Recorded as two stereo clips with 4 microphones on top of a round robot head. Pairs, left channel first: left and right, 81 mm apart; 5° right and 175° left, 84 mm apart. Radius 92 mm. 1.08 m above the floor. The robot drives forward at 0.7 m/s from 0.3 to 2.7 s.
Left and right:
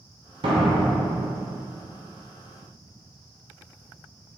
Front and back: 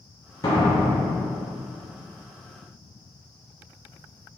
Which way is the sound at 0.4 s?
60° right.